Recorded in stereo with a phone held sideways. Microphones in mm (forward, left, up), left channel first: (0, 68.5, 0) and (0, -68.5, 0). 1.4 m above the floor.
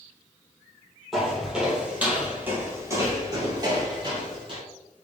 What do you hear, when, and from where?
1.1 s footsteps: centre (ahead or behind), 1.8 m; by 4.6 s 40° right (ahead or behind), 1.7 m